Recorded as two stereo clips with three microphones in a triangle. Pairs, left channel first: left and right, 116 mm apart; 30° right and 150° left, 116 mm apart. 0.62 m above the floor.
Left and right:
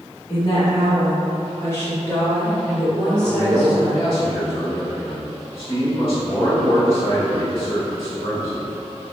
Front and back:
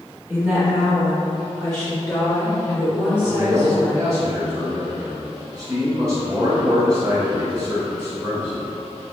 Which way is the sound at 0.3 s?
80° left.